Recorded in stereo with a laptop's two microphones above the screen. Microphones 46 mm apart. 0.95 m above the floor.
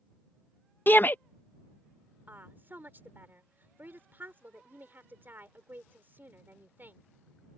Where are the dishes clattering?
I don't hear dishes clattering.